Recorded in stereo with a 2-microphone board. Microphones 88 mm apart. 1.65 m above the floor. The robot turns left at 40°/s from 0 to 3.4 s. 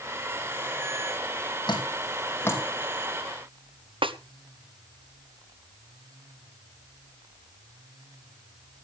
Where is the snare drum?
75° right (ahead or behind), 1.0 m.